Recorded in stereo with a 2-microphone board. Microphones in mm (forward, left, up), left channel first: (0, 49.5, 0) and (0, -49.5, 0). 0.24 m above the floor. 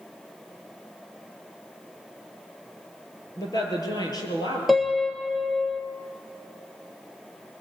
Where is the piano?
Centre (ahead or behind), 1.2 m.